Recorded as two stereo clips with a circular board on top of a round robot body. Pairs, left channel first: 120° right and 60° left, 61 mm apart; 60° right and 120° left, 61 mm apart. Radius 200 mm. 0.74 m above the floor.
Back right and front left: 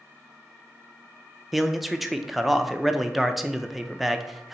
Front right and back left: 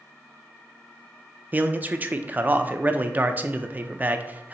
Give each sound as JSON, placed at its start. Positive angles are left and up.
{"t": 1.5, "sound": "a man speaking", "azimuth_deg": 145, "distance_m": 0.6}